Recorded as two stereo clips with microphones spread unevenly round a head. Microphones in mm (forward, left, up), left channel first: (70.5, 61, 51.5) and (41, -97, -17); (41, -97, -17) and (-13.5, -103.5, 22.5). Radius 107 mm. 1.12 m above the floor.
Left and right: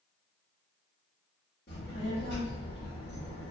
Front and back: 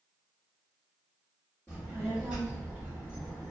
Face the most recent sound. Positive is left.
turn(degrees=105)